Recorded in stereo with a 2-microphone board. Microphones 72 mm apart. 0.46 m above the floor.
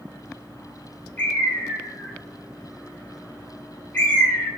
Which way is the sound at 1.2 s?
30° left (ahead or behind).